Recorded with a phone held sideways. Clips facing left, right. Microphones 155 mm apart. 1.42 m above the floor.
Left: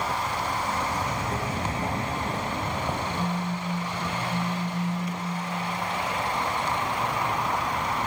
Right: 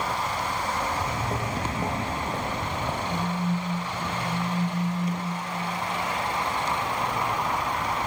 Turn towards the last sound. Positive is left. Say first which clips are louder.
# right 1 dB
turn(degrees=-20)  # may be behind; listen again after turning